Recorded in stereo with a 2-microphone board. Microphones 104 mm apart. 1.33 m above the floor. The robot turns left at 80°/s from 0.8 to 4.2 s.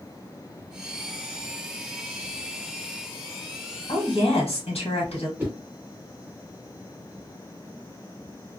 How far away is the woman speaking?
About 1.5 m.